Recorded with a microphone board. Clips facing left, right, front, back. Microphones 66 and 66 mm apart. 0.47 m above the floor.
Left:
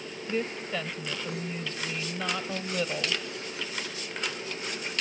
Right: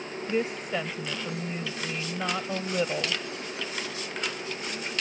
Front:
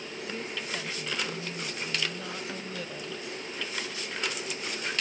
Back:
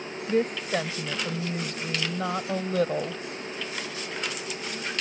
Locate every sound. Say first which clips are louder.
0.3 s a woman speaking: right 3 dB, back 13 dB; 165° right